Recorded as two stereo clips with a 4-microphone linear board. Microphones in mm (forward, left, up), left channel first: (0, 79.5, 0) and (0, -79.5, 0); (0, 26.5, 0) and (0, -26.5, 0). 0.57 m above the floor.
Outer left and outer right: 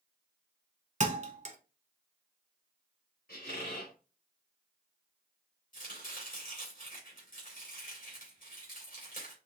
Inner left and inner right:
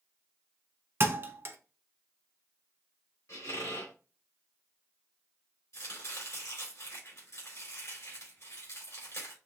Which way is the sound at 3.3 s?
65° left (ahead or behind).